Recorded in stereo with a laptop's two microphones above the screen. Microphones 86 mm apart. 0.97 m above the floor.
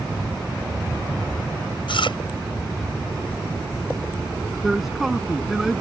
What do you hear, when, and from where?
1.9 s chewing: 75° left (ahead or behind)
4.6 s a man speaking: 5° right (ahead or behind)